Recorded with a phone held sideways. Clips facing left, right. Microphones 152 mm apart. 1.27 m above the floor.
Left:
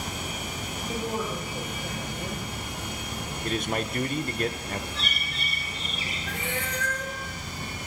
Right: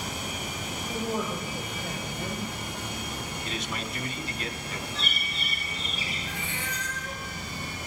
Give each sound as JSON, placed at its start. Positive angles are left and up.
{"t": 0.9, "sound": "a woman speaking", "side_deg": 10, "distance_m": 6.0}
{"t": 3.4, "sound": "a man speaking", "side_deg": 50, "distance_m": 1.0}
{"t": 4.9, "sound": "a bird", "side_deg": -5, "distance_m": 9.0}
{"t": 6.3, "sound": "a cat meowing", "side_deg": 80, "distance_m": 3.5}